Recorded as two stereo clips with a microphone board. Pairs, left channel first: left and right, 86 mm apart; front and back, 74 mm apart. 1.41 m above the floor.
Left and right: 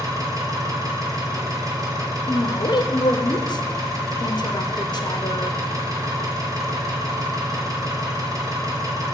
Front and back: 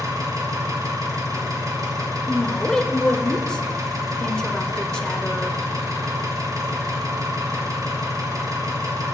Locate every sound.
0.0 s an engine running: 140° right, 1.2 m
2.3 s a woman speaking: 75° left, 0.5 m